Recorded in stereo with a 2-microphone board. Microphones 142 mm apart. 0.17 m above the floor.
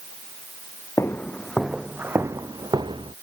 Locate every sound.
1.0 s footsteps: 20° left (ahead or behind); by 3.1 s 40° right (ahead or behind)